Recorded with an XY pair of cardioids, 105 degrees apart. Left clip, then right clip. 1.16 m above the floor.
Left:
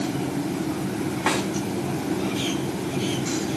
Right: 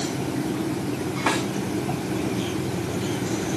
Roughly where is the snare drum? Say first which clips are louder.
Even; ahead left.